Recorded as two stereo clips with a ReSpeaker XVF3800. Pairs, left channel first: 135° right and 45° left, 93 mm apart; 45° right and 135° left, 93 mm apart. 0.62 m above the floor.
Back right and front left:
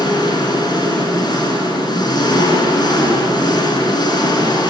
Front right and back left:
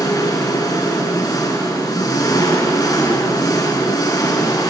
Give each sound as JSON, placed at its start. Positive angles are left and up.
{"t": 0.0, "sound": "an engine running", "azimuth_deg": -90, "distance_m": 4.5}